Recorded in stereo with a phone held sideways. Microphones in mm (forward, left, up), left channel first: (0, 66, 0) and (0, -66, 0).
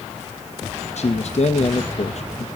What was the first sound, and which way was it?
A man speaking, 55° left (ahead or behind).